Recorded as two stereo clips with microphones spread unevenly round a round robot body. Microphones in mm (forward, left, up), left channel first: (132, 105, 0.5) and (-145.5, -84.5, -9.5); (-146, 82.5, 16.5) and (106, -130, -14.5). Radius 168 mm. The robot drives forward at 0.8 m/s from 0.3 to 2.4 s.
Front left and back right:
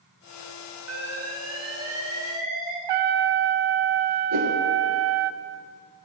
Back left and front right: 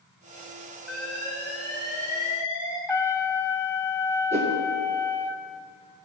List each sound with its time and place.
0.9 s an alarm: 175° right, 3 m; by 2.8 s straight behind, 4 m
2.9 s a trumpet: 135° right, 0.6 m
4.3 s a whoosh: 110° right, 2.5 m